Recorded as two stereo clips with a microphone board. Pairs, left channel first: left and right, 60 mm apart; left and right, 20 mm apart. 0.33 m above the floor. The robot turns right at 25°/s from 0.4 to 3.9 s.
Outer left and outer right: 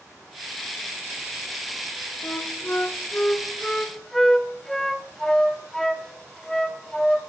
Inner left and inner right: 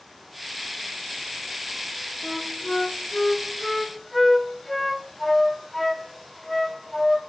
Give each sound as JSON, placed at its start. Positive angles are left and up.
{"t": 2.2, "sound": "a flute", "side_deg": 40, "distance_m": 0.6}